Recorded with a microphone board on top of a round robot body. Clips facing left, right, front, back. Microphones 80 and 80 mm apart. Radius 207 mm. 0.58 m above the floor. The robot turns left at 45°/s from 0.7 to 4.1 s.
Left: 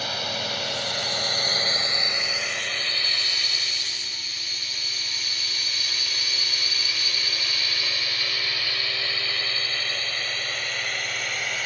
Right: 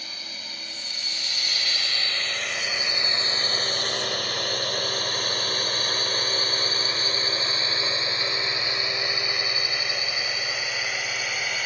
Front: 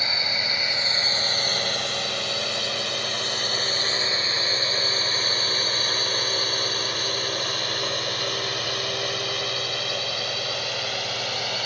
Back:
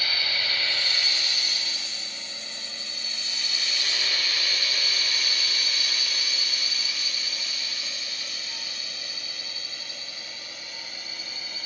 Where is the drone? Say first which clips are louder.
Left 12 dB, front 2 dB; 70° left; by 11.7 s straight ahead.